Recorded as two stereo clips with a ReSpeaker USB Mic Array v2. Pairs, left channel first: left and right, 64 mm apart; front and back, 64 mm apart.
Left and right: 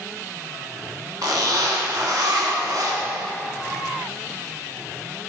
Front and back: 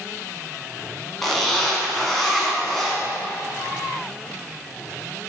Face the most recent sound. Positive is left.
turn(degrees=-85)